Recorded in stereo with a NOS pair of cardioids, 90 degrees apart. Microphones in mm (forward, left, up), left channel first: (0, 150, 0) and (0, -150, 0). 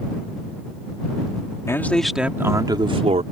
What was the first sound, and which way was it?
A man speaking, 10° left.